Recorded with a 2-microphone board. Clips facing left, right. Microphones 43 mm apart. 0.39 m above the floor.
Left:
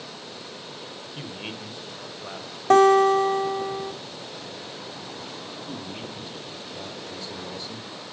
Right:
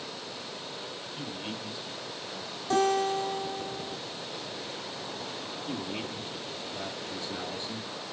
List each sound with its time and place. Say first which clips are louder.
1.1 s a man speaking: left 2 dB; 40° left (ahead or behind), 1.7 m; by 2.6 s 45° left (ahead or behind), 2 m
2.7 s a guitar: left 10 dB; 55° left (ahead or behind), 2 m
5.7 s a man speaking: right 3 dB; 35° right (ahead or behind), 4.5 m